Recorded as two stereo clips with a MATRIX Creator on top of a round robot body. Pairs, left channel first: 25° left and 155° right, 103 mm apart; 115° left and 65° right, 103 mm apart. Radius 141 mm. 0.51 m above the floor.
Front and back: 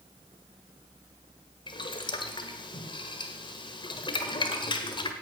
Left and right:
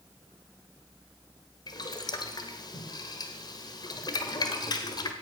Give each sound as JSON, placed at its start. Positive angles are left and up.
{"t": 1.7, "sound": "boiling", "azimuth_deg": 65, "distance_m": 1.5}